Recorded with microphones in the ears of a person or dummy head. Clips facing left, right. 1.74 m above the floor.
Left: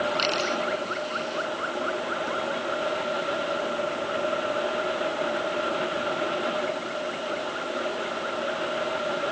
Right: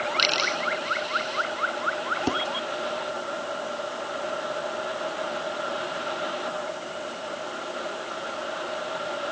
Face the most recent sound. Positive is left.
turn(degrees=-85)